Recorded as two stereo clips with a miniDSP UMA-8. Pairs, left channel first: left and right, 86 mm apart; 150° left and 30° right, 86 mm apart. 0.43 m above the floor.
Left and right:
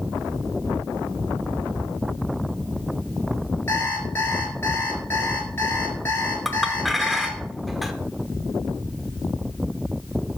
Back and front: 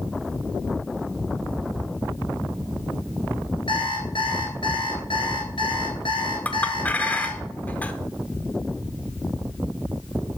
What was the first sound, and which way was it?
An alarm clock, 155° left.